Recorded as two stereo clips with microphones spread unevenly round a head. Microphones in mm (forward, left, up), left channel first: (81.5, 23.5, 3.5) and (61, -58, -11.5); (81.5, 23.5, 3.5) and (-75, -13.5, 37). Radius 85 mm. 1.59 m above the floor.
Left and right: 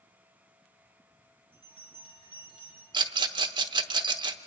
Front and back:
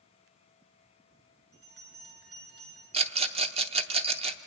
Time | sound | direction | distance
1.5 | a bell | 170° left | 8.5 m
2.9 | a rattle | 140° right | 0.8 m